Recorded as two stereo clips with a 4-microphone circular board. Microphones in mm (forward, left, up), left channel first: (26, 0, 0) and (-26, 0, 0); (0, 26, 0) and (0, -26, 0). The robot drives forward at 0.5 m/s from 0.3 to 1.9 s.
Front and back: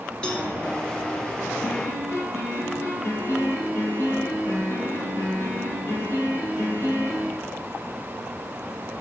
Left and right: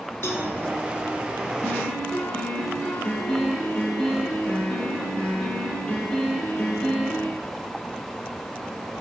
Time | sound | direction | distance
0.2 | a cowbell | 70° left | 0.9 m
1.6 | a piano | 20° left | 4 m